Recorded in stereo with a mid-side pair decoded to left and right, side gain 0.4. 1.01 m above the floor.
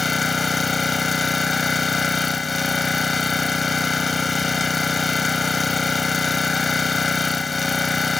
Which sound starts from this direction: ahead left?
An engine running, at 0.0 s.